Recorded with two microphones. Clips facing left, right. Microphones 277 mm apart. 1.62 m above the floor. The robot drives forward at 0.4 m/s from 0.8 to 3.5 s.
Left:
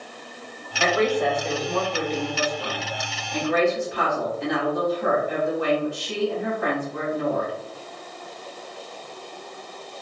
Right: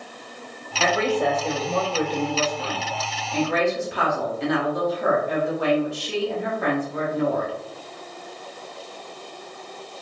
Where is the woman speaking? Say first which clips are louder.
Left 1 dB; 30° right (ahead or behind), 1.5 m; by 7.5 s 70° right (ahead or behind), 0.8 m.